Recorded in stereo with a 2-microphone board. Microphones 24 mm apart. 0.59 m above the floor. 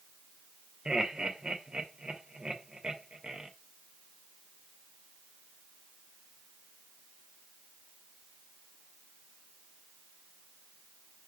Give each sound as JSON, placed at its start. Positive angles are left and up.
{"t": 0.8, "sound": "laughter", "side_deg": -40, "distance_m": 2.0}